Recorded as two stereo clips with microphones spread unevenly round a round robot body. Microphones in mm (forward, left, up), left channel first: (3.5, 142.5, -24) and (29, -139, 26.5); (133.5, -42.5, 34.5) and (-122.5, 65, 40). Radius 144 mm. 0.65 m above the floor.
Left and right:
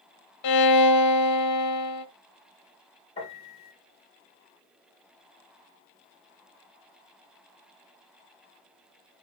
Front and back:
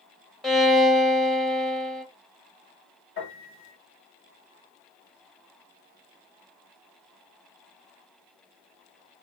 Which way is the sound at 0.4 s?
65° left.